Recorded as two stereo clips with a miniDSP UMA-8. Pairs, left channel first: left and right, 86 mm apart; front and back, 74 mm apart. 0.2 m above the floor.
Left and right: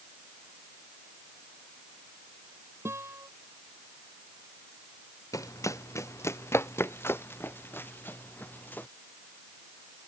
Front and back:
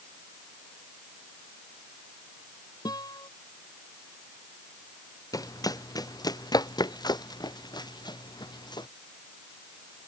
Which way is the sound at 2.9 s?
30° right.